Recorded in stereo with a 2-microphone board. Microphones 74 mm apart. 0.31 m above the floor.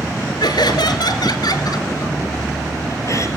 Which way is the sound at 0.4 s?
80° left.